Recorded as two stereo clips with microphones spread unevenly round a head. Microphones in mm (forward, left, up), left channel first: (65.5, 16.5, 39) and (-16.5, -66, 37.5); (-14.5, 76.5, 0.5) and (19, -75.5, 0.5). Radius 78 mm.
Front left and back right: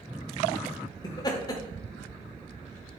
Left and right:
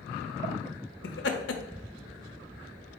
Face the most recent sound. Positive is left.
turn(degrees=105)